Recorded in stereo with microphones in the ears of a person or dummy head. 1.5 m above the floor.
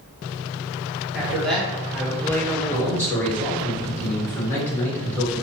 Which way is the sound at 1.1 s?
Centre (ahead or behind).